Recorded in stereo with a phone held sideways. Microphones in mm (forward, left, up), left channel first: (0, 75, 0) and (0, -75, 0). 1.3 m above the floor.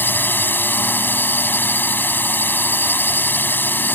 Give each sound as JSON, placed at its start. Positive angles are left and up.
{"t": 0.0, "sound": "a drone", "side_deg": 10}